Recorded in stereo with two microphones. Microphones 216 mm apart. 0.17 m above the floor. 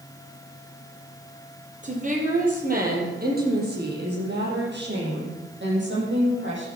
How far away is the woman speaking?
About 5.5 m.